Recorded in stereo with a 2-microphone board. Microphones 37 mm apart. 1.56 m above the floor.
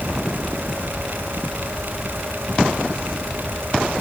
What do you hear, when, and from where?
Only background noise.